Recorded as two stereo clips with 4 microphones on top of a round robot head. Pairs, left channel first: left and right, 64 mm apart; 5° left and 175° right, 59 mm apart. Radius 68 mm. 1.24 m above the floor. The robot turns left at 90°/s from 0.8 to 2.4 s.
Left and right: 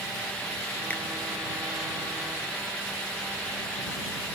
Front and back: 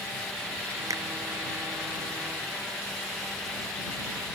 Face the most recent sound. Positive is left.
turn(degrees=25)